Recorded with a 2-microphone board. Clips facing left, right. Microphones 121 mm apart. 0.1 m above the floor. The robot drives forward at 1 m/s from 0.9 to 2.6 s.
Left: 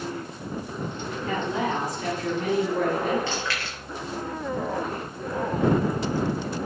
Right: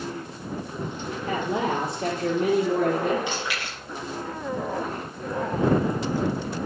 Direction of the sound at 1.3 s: 30° right (ahead or behind).